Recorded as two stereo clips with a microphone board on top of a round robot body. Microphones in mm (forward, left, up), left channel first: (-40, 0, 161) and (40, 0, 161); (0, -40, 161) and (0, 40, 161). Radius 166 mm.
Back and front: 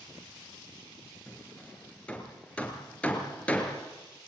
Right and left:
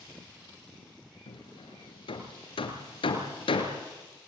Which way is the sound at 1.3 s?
105° right.